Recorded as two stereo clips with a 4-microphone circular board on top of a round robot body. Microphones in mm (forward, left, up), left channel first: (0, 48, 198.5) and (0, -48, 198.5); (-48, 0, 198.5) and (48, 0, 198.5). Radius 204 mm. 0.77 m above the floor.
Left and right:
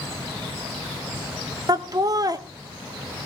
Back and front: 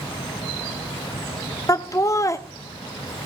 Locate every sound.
1.7 s laughter: 130° right, 1.4 m